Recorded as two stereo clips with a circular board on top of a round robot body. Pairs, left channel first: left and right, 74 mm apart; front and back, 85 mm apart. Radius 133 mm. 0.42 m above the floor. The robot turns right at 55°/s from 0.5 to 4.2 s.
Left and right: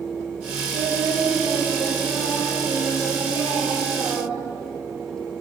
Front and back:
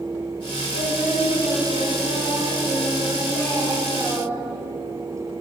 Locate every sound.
0.7 s singing: 85° right, 2 m; by 4.6 s 110° left, 2 m